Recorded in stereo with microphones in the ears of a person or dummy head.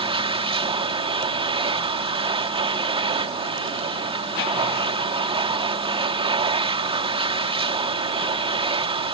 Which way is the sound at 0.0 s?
30° right (ahead or behind).